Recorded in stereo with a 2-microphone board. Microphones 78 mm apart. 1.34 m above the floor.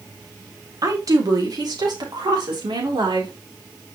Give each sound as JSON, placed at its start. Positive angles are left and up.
{"t": 0.8, "sound": "a woman speaking", "side_deg": -50, "distance_m": 2.5}